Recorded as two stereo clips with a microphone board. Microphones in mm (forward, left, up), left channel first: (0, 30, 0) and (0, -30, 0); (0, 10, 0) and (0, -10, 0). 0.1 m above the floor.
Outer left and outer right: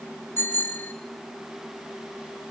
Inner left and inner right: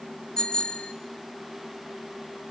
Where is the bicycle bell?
40° left (ahead or behind), 3 m.